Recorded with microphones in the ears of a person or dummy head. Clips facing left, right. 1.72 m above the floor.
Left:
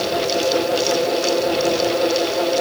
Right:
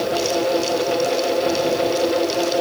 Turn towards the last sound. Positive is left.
No sound to turn to.